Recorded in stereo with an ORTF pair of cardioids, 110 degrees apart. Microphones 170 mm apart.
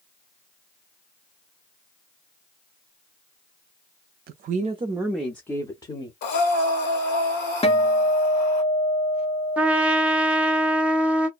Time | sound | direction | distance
4.3 | a woman speaking | 65° right | 0.6 m
6.2 | breathing | 70° left | 1.2 m
7.6 | a guitar | 35° left | 0.7 m
9.6 | a trumpet | 5° right | 0.6 m